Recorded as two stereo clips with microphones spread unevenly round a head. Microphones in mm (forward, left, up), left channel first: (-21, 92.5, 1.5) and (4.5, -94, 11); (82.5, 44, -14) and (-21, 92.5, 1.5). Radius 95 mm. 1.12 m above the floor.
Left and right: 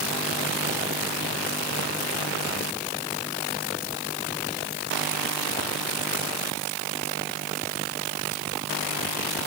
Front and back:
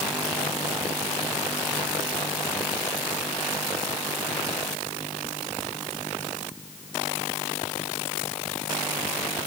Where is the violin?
No violin in this recording.